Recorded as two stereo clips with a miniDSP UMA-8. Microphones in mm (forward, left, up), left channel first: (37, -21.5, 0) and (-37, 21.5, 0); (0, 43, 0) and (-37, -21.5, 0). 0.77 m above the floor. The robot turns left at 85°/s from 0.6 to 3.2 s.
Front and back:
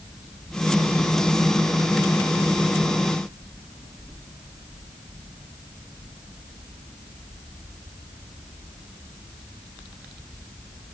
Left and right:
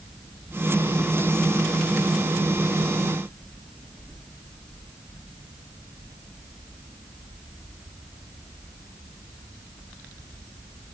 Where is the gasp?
I don't hear a gasp.